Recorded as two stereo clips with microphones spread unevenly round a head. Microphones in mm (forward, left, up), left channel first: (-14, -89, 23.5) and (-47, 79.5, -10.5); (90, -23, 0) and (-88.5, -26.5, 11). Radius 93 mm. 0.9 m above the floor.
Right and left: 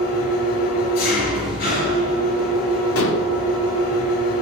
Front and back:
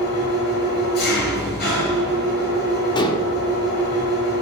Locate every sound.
0.0 s an engine running: 35° right, 6.5 m
3.0 s dishes clattering: 65° right, 1.8 m